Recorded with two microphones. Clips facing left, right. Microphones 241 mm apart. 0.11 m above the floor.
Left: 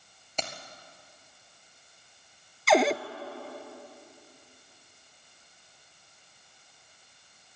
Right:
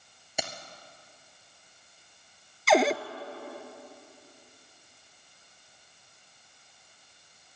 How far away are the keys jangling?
About 1.5 m.